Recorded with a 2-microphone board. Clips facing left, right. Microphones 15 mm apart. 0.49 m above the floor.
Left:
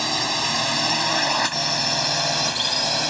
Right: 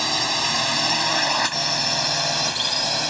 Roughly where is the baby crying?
I don't hear a baby crying.